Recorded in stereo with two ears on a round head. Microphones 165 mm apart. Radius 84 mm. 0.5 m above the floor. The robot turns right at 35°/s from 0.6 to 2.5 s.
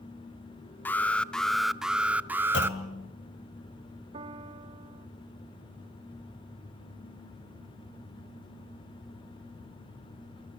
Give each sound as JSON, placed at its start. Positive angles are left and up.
{"t": 0.8, "sound": "an alarm", "side_deg": 10, "distance_m": 0.6}
{"t": 2.5, "sound": "a clunk", "side_deg": 70, "distance_m": 2.5}
{"t": 4.1, "sound": "a piano", "side_deg": -30, "distance_m": 0.8}